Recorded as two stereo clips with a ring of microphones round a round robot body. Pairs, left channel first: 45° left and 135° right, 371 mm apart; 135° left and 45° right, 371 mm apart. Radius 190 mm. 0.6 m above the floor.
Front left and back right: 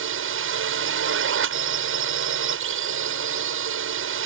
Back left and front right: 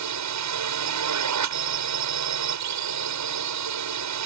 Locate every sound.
0.0 s a drone: 80° right